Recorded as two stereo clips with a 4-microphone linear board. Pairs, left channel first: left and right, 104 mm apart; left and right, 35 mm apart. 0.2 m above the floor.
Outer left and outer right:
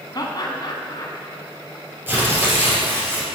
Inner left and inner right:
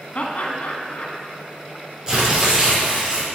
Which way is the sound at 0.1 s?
45° left (ahead or behind).